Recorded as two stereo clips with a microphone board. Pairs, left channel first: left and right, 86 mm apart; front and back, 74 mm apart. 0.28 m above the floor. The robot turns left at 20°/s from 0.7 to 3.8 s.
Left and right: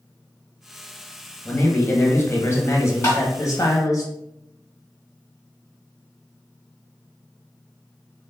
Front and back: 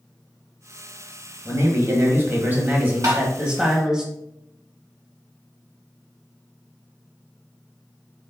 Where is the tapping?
145° left, 2 m; by 3.2 s 140° left, 2 m.